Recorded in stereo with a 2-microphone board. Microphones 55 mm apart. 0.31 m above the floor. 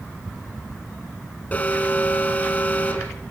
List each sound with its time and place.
1.5 s an alarm: 25° left (ahead or behind), 3 m